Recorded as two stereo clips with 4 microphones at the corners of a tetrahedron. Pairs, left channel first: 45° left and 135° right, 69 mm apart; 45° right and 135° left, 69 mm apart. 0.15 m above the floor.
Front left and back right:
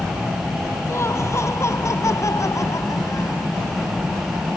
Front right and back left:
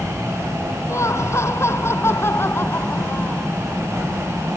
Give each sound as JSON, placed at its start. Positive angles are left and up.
{"t": 0.9, "sound": "laughter", "azimuth_deg": -5}